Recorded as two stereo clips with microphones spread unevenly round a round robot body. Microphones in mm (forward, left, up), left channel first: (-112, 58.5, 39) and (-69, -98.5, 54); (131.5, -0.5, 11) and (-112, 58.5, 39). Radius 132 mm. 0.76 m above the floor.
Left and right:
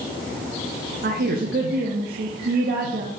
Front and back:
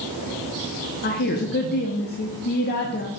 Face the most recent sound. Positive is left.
turn(degrees=-55)